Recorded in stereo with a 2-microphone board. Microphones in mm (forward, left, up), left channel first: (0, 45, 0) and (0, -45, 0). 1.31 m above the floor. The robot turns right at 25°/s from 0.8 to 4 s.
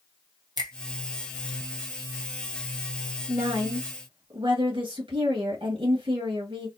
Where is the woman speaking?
85° right, 1.9 m; by 6.7 s 75° right (ahead or behind), 1.9 m.